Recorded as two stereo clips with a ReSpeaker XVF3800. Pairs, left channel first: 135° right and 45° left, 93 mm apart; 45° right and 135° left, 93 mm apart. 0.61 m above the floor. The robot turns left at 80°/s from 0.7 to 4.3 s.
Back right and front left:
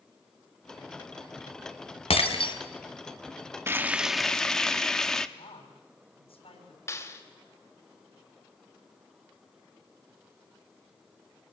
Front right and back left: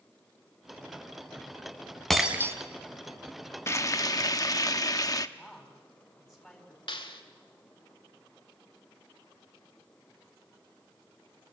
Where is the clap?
75° right, 2.0 m.